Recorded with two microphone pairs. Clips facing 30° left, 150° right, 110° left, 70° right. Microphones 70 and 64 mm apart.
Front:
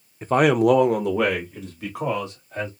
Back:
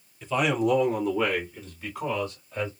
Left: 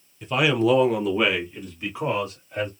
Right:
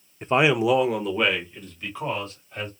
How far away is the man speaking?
About 0.5 m.